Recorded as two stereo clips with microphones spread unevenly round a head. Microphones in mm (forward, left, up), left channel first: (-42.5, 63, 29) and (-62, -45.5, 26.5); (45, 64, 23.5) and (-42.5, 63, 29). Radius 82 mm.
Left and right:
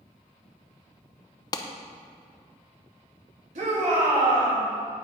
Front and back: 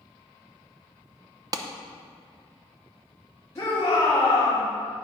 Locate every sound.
1.5 s a clap: 135° left, 0.8 m
3.5 s a shout: 70° right, 3 m